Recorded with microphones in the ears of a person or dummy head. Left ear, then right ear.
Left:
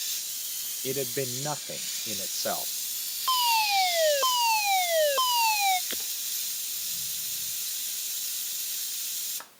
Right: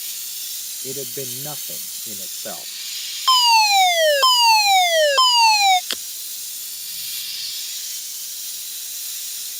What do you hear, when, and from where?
0.8 s a man speaking: 25° left (ahead or behind)
3.3 s a fire alarm: 45° right (ahead or behind)
5.9 s breaking glass: 50° right (ahead or behind)